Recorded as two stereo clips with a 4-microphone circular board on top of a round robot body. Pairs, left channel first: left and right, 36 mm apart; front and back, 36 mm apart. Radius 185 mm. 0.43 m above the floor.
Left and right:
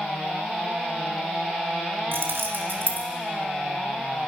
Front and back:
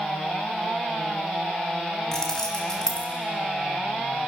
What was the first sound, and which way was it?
Keys jangling, 75° right.